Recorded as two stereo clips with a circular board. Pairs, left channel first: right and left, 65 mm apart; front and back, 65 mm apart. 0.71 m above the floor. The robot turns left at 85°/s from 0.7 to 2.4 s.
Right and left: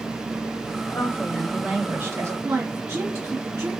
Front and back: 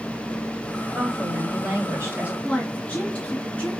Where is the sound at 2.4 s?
60° left, 1.7 m.